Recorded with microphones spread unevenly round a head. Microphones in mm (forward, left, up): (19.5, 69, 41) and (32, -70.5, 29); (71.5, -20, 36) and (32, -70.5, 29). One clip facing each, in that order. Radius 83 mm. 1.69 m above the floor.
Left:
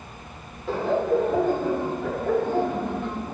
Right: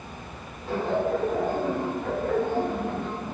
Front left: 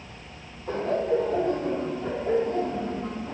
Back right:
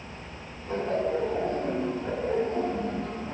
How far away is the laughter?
About 6.5 m.